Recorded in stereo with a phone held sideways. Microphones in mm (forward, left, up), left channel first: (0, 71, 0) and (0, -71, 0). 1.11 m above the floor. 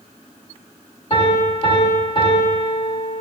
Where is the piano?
35° left (ahead or behind), 4.5 m.